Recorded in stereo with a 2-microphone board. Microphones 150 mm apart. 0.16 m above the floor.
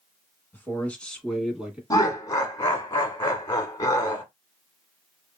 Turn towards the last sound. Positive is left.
turn(degrees=25)  # may be behind; listen again after turning